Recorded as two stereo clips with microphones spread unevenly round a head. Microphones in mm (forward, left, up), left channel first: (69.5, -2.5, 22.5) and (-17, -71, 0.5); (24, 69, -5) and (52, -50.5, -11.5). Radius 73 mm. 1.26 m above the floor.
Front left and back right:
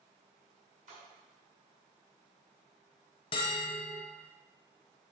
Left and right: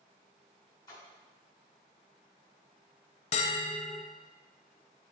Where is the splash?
170° left, 1.4 m.